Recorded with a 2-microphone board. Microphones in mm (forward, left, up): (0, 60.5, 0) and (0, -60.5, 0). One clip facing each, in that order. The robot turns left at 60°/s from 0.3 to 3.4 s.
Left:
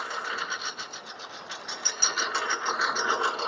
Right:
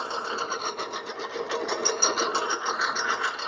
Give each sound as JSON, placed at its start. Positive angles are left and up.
{"t": 0.0, "sound": "a lawn mower", "azimuth_deg": -30}